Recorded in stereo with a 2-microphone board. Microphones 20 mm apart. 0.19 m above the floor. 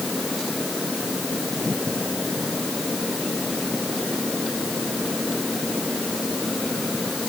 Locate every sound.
Only background noise.